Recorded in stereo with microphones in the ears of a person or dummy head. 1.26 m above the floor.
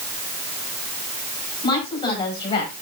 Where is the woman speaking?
25° left (ahead or behind), 7 m.